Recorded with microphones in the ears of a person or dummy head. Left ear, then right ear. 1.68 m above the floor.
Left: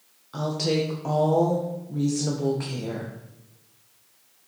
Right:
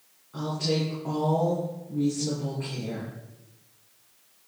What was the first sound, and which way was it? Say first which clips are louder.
A woman speaking: left 3 dB; 75° left (ahead or behind).